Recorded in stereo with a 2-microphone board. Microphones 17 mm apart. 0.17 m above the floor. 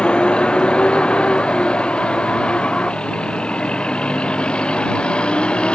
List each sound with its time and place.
0.0 s a vehicle: 80° left; by 5.8 s 85° left